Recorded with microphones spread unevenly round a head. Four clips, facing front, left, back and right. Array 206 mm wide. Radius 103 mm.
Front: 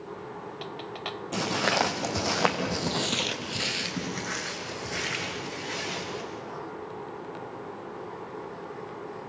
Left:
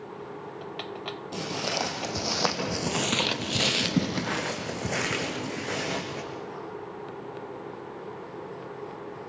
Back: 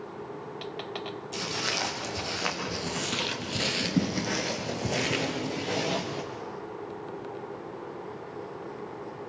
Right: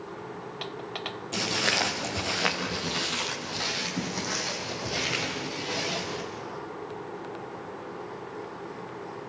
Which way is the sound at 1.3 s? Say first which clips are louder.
Right 2 dB, front 9 dB; straight ahead.